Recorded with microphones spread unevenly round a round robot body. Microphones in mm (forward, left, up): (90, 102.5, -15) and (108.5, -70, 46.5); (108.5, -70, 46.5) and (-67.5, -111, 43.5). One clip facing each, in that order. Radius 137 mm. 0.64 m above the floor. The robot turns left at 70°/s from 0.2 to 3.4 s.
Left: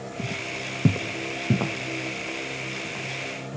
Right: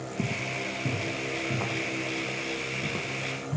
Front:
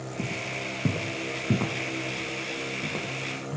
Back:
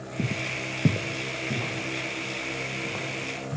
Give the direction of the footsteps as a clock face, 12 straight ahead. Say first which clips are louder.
Right 3 dB, back 4 dB; 3 o'clock.